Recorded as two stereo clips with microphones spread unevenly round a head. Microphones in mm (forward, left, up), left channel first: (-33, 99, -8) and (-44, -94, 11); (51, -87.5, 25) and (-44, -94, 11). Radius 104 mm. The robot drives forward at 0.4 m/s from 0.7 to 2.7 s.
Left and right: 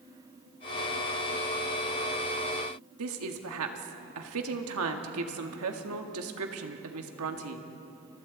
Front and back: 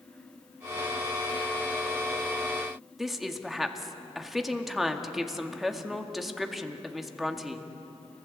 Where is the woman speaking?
90° right, 1.9 m.